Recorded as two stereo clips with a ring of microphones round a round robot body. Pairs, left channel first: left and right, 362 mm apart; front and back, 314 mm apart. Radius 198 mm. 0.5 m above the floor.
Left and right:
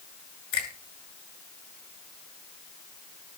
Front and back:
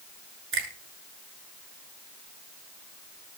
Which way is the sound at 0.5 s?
130° left.